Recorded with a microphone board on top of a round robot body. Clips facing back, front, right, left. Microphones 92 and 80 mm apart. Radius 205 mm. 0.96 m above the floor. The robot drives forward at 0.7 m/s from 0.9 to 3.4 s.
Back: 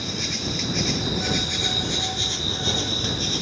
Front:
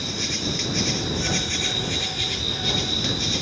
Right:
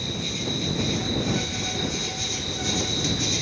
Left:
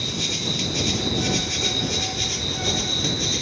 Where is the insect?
90° left, 2 m; by 3.4 s 130° left, 3 m.